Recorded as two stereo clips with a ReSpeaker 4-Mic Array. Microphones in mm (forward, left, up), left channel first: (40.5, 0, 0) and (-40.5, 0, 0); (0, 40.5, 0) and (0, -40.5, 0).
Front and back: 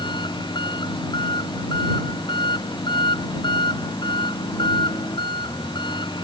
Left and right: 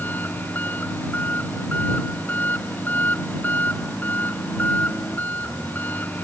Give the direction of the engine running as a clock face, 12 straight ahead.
11 o'clock.